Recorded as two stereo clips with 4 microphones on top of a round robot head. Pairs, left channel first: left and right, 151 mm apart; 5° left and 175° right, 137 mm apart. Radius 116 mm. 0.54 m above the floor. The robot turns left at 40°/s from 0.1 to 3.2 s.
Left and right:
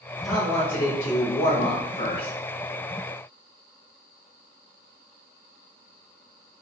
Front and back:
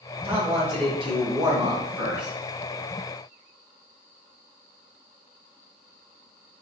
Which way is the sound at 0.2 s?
175° right.